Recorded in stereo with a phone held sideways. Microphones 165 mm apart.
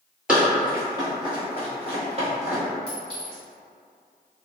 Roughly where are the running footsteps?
Centre.